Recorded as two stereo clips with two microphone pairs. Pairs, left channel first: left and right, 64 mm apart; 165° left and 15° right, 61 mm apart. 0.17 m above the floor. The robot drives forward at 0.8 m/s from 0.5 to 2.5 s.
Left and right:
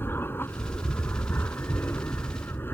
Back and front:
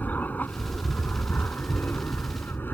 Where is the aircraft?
120° left; by 2.8 s 125° left.